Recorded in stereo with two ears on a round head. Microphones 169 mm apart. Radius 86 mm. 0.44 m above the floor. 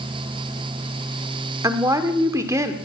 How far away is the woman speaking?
About 1.2 m.